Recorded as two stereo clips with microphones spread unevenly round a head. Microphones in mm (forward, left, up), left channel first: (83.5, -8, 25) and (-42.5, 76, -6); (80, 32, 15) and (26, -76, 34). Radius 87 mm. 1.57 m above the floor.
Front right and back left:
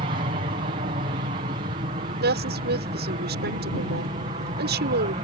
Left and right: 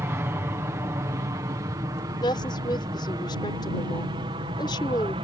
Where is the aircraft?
170° left; by 5.2 s 165° right.